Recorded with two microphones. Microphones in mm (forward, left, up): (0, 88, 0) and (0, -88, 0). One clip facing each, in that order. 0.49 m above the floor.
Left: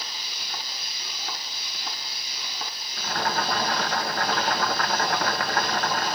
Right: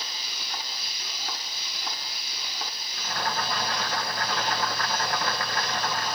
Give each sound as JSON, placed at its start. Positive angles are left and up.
{"t": 3.0, "sound": "boiling", "side_deg": 65, "distance_m": 0.9}